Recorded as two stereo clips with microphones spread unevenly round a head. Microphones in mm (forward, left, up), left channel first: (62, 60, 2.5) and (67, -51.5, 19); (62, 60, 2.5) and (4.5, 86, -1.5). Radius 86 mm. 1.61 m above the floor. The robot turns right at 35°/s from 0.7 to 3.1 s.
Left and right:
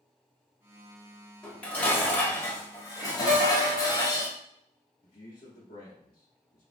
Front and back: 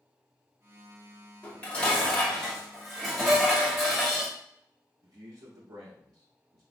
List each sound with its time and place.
1.4 s dishes clattering: straight ahead, 0.9 m; by 4.3 s 60° left, 0.9 m
3.3 s a piano: 80° right, 0.6 m
5.0 s a man speaking: 130° left, 0.6 m